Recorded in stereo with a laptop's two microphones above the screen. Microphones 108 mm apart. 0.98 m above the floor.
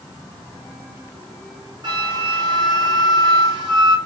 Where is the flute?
40° right (ahead or behind), 0.7 m.